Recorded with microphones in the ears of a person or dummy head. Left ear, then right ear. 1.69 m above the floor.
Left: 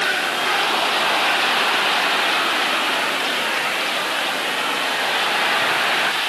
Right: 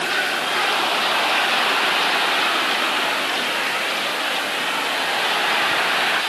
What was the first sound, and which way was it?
Only background noise.